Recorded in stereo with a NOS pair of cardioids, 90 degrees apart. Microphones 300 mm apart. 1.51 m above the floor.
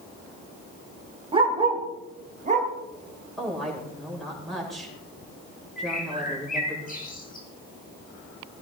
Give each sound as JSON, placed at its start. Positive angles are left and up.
{"t": 1.3, "sound": "a dog barking", "azimuth_deg": -20, "distance_m": 3.0}
{"t": 3.4, "sound": "a woman speaking", "azimuth_deg": 0, "distance_m": 7.0}
{"t": 5.8, "sound": "a bird", "azimuth_deg": 30, "distance_m": 4.0}